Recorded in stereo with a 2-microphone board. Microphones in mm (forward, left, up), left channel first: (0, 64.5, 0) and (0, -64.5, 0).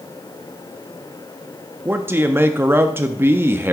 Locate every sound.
1.9 s a man speaking: 15° right (ahead or behind), 0.5 m